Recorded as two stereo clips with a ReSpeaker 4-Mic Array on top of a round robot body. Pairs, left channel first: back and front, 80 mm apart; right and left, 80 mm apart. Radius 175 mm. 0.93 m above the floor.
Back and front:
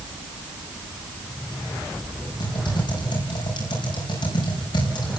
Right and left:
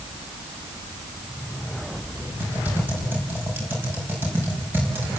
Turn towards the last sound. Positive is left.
turn(degrees=160)